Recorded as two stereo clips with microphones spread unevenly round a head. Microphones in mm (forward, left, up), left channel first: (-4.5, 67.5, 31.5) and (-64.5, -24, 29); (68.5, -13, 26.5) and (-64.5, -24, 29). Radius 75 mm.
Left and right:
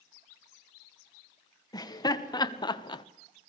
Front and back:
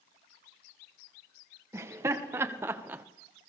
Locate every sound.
1.7 s laughter: 115° left, 2 m; by 3.0 s 105° left, 1.1 m